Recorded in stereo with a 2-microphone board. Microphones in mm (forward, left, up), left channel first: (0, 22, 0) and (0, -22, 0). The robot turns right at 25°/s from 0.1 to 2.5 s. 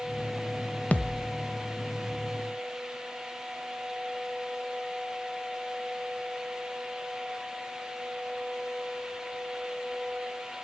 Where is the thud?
35° left (ahead or behind), 1.2 m; by 1.3 s 45° left (ahead or behind), 1.2 m.